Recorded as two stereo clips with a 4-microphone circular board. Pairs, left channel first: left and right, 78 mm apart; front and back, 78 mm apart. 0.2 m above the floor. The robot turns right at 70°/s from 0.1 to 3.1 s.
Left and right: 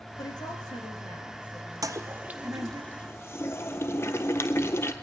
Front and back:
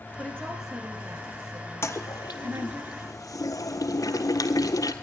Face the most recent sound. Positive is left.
turn(degrees=35)